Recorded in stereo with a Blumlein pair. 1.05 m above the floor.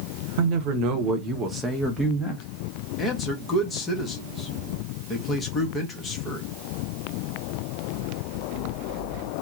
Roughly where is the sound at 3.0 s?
Ahead.